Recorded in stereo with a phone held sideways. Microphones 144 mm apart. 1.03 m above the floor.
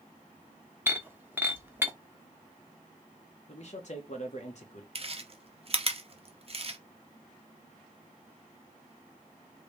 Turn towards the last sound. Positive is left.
turn(degrees=-45)  # may be behind; listen again after turning